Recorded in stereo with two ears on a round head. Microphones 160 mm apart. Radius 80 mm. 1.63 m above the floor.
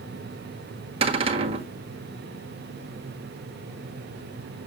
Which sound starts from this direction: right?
A cupboard door, at 1.0 s.